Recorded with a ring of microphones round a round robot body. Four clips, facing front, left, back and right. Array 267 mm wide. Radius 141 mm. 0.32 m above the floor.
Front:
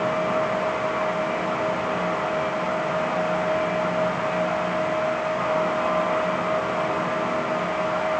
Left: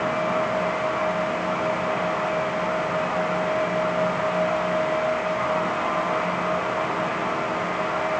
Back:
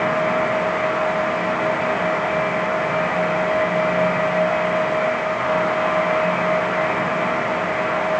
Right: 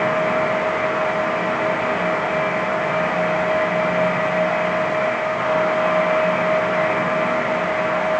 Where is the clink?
No clink in this recording.